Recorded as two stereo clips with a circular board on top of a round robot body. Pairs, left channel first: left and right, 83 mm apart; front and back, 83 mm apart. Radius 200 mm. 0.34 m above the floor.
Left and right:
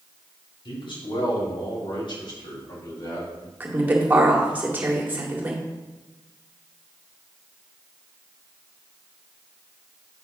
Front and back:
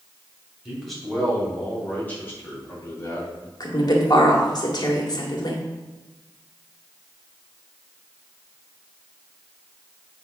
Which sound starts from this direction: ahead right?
A woman speaking, at 3.6 s.